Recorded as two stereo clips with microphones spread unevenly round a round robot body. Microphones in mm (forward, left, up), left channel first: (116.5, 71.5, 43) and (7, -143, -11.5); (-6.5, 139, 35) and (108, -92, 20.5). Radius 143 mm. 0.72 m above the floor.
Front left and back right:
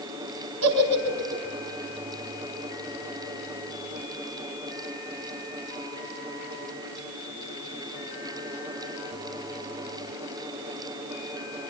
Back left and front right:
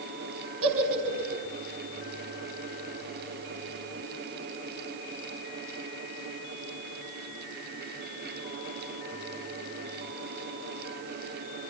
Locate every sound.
0.6 s a giggle: 110° right, 4.5 m